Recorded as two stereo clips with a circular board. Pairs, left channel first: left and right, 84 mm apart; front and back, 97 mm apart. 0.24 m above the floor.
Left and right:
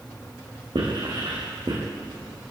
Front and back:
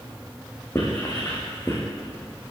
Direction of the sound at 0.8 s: 65° right.